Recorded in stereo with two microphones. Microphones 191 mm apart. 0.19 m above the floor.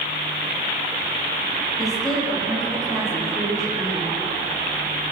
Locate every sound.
1.8 s a woman speaking: centre (ahead or behind), 9.5 m; by 4.1 s 5° left (ahead or behind), 11.5 m